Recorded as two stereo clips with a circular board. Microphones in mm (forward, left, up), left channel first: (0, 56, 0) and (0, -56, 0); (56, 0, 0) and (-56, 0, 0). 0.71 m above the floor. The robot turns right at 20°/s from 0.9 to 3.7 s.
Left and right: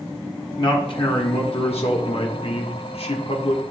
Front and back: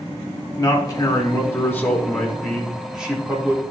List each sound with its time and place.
0.6 s a man speaking: 55° left, 1.0 m; by 3.6 s 110° left, 1.0 m